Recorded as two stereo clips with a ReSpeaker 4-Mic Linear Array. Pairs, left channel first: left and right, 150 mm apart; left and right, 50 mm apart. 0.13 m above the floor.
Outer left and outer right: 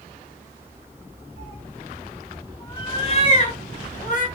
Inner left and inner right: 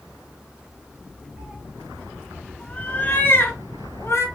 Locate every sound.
1.4 s a cat meowing: 20° right (ahead or behind), 0.8 m; by 4.3 s 60° left (ahead or behind), 1.3 m